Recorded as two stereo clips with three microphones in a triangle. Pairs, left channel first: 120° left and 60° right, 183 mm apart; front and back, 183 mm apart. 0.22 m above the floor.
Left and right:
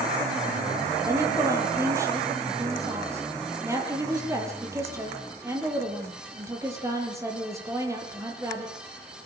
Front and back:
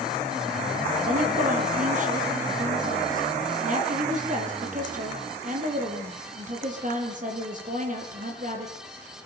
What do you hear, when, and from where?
1.1 s a woman speaking: 135° right, 7.5 m